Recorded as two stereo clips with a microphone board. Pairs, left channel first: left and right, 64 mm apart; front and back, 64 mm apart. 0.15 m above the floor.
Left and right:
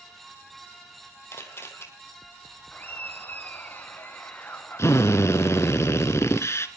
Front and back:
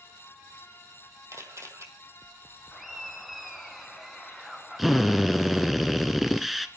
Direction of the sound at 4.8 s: 90° left.